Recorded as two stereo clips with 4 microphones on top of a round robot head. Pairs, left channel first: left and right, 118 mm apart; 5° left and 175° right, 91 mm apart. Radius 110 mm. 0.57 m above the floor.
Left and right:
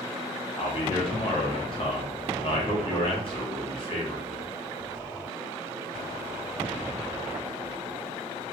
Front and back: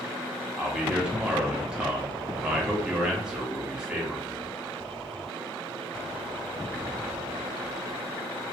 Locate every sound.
0.6 s a man speaking: 105° left, 1.4 m